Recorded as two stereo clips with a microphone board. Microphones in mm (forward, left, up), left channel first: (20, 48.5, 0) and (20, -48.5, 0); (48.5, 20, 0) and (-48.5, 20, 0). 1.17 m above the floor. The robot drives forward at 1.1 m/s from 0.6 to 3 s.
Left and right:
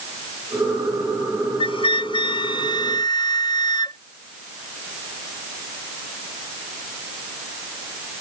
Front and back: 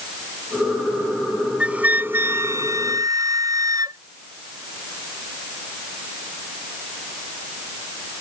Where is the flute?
105° left; by 4.0 s 130° left.